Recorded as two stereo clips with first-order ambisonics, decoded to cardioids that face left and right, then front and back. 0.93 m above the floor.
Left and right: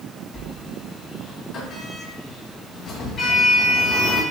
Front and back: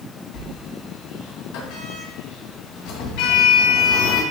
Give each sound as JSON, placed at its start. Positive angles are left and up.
{"t": 0.3, "sound": "a sliding door", "azimuth_deg": 25, "distance_m": 3.0}